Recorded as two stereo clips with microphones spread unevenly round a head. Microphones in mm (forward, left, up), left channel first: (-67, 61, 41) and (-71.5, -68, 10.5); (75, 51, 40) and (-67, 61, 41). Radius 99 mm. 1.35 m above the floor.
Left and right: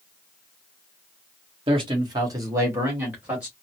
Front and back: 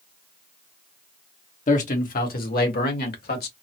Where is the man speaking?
45° right, 1.1 m; by 3.5 s 10° right, 1.7 m.